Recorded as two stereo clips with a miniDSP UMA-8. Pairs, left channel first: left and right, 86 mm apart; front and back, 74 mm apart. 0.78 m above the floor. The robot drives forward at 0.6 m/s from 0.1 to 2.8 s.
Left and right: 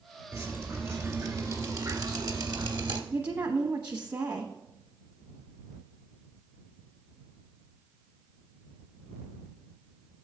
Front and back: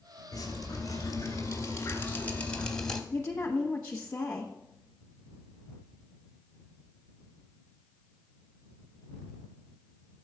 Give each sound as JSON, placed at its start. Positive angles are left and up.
{"t": 0.3, "sound": "dripping", "azimuth_deg": -25, "distance_m": 1.9}
{"t": 3.1, "sound": "a woman speaking", "azimuth_deg": -60, "distance_m": 1.0}